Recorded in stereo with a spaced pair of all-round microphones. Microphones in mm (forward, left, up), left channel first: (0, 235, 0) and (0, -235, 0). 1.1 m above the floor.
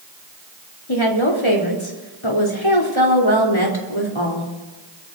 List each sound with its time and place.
0.9 s a woman speaking: 80° left, 3.5 m